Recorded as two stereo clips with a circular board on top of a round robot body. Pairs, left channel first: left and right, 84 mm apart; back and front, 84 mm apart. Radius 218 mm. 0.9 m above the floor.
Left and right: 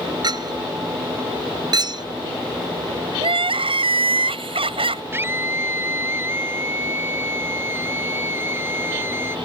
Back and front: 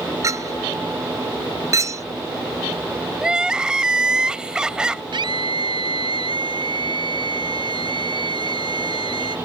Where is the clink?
55° right.